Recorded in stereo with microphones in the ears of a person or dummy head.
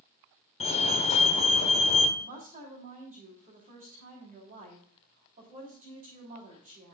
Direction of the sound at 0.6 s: 30° left (ahead or behind).